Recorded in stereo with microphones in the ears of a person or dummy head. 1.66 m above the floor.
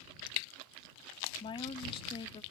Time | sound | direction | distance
1.4 | a woman speaking | 30° left (ahead or behind) | ?